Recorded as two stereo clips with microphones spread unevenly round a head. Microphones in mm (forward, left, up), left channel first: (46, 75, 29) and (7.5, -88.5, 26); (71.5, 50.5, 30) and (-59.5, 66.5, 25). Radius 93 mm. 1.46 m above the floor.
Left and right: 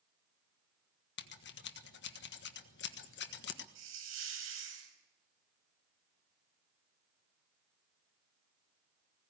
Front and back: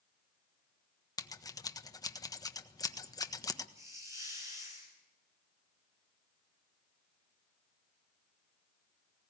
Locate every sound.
1.2 s scissors: 55° left, 1.5 m
3.8 s a hiss: 110° right, 5.5 m